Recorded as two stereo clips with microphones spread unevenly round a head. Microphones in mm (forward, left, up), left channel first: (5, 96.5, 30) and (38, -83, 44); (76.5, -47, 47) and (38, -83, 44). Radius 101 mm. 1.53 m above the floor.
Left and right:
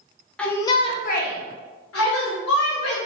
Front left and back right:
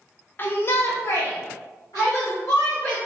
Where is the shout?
10° left, 0.6 m; by 3.0 s 115° left, 1.4 m.